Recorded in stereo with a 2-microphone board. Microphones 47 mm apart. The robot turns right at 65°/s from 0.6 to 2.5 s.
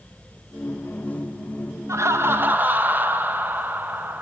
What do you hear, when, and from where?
1.9 s laughter: 80° right, 0.6 m; by 4.2 s 40° right, 0.6 m